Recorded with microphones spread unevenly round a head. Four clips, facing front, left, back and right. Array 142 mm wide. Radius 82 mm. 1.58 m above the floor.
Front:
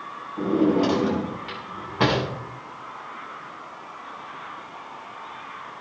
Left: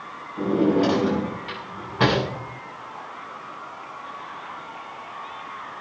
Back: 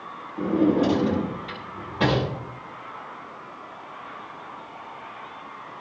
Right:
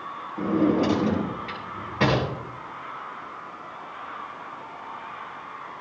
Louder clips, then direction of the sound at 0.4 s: Left 2 dB, even; 5° left.